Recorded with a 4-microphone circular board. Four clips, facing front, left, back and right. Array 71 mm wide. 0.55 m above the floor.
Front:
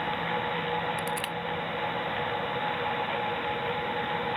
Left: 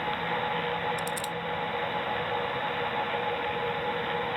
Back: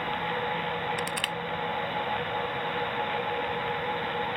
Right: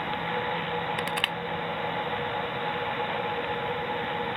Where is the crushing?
105° right.